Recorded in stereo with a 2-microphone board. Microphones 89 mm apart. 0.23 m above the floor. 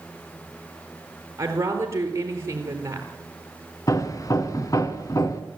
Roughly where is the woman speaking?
Right.